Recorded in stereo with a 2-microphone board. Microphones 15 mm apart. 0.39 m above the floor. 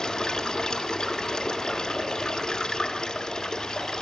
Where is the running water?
60° left (ahead or behind), 1.5 m.